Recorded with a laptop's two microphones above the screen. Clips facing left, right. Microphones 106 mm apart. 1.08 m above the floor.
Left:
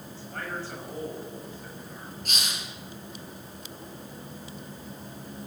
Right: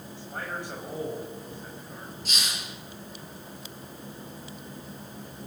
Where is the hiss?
50° left (ahead or behind), 7.5 m.